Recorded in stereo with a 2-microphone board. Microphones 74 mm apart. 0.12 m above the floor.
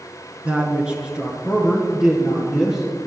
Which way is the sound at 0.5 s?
15° right (ahead or behind).